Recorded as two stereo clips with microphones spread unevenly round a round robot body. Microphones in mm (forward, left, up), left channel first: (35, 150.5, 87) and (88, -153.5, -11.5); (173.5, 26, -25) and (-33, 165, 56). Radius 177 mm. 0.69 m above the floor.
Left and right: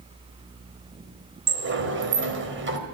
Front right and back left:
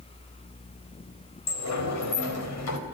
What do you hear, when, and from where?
1.5 s a sliding door: 30° right, 3.5 m